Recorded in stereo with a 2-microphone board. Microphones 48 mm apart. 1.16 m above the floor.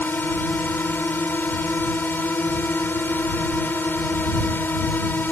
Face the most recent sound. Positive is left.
turn(degrees=45)  # may be behind; listen again after turning